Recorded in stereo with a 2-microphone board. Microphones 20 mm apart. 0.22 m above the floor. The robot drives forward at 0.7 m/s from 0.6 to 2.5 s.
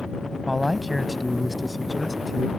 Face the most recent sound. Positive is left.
turn(degrees=0)  # may be behind; listen again after turning